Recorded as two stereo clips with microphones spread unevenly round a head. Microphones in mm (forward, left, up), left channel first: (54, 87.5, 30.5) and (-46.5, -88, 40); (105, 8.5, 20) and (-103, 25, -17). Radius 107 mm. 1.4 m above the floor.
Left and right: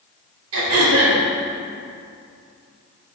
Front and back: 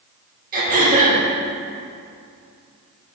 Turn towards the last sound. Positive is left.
turn(degrees=-130)